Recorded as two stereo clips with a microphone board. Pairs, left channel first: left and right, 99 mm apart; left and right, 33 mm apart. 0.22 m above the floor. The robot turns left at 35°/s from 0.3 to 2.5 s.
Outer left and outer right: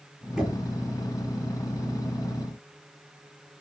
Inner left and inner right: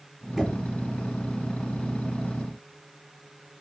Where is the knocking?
5° right (ahead or behind), 4.5 m; by 0.6 s 10° right (ahead or behind), 4.5 m.